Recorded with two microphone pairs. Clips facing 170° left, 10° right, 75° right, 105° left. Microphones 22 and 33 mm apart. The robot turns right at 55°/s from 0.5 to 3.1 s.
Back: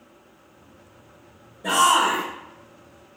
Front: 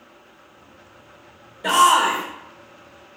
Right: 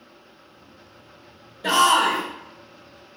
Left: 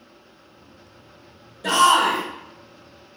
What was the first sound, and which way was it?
A shout, straight ahead.